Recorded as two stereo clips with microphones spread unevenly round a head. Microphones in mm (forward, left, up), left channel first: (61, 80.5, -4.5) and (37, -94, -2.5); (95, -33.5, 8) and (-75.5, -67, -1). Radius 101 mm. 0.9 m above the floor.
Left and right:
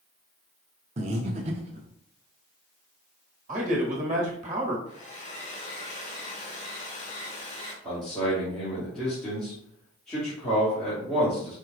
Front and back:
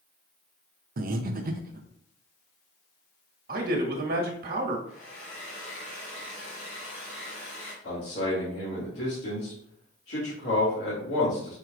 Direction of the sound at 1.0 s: 150° right.